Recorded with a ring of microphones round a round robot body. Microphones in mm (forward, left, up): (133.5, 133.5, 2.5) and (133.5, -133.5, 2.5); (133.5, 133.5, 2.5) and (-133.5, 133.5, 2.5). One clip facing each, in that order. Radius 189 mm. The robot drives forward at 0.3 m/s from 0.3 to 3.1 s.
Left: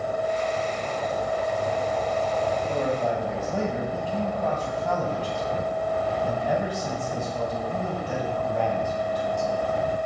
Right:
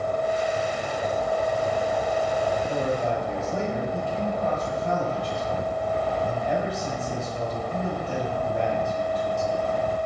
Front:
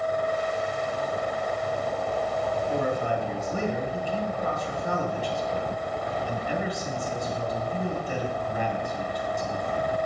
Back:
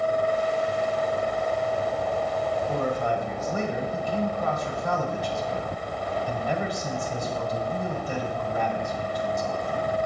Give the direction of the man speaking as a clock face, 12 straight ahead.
6 o'clock.